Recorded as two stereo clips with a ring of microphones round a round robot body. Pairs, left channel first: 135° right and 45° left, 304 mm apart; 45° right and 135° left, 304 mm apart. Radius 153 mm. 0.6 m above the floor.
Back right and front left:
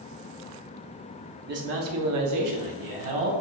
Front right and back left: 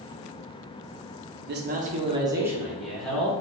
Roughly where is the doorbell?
I don't hear a doorbell.